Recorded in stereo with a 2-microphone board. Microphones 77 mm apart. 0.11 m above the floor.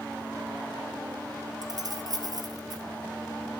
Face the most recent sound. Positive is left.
turn(degrees=-60)  # may be behind; listen again after turning